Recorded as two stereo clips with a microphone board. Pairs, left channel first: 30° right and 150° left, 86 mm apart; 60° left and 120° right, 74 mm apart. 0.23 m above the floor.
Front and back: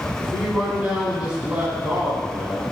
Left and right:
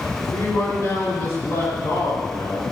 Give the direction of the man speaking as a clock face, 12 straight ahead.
9 o'clock.